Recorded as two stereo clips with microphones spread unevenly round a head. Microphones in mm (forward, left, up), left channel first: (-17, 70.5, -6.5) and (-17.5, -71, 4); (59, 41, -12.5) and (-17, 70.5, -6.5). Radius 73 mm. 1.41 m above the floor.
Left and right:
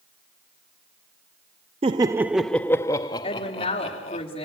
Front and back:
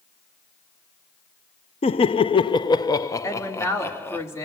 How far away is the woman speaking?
About 3.5 m.